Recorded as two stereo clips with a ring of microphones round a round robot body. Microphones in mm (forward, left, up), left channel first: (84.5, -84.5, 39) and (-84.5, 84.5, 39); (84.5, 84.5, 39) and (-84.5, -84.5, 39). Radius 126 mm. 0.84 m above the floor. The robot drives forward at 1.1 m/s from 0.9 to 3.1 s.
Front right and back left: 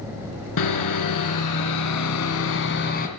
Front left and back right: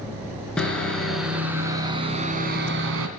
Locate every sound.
0.6 s sawing: 40° right, 2.5 m; by 3.1 s 100° right, 1.9 m